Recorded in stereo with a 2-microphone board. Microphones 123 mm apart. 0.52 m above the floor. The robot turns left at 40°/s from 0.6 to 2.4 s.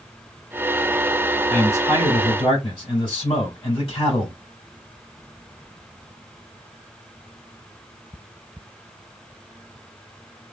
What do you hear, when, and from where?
1.5 s a man speaking: 165° left, 2 m; by 4.4 s 125° left, 2 m